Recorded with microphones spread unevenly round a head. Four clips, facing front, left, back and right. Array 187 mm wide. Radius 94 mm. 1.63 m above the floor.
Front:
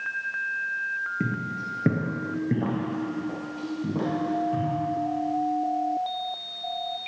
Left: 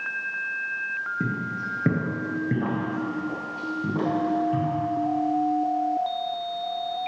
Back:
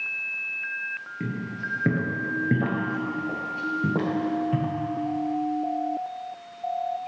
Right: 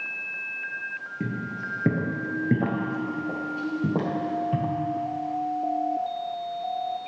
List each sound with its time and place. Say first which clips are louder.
1.2 s footsteps: right 1 dB, front 2 dB; 10° left, 1.7 m; by 4.7 s 145° right, 2.5 m